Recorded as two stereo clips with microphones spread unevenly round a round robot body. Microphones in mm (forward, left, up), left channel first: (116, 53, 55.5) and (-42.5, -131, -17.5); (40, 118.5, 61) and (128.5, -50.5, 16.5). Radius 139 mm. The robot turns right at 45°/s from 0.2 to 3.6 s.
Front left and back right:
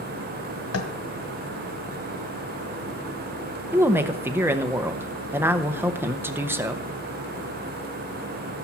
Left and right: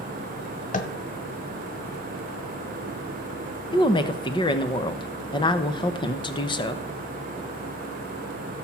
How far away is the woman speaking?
About 0.7 m.